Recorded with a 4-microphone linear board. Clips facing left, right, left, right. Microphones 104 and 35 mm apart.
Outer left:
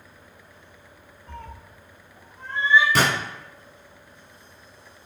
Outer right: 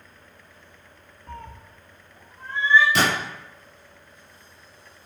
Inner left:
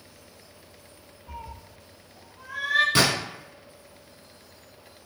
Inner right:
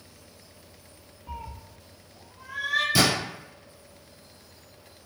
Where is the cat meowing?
50° right (ahead or behind), 1.1 m; by 2.9 s 15° left (ahead or behind), 0.7 m.